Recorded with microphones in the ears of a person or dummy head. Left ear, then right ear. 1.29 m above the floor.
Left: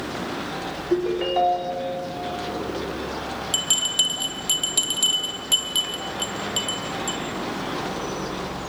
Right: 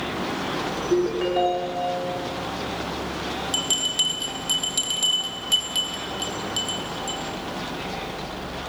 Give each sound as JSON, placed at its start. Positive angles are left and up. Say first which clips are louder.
{"t": 0.9, "sound": "a ringtone", "louder": "left 1 dB", "side_deg": 20, "distance_m": 2.5}
{"t": 3.5, "sound": "a bell", "louder": "left 2 dB", "side_deg": 20, "distance_m": 1.1}